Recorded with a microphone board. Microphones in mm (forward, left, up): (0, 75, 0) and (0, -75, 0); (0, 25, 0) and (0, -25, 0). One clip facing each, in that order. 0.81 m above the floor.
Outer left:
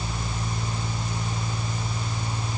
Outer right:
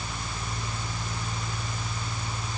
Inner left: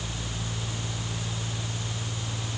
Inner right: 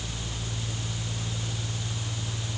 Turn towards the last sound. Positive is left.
No sound to turn to.